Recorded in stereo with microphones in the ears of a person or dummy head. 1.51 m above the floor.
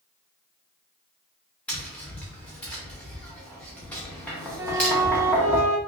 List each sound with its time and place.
1.7 s tapping: 5° left (ahead or behind), 1.0 m
4.6 s a flute: 20° right (ahead or behind), 0.6 m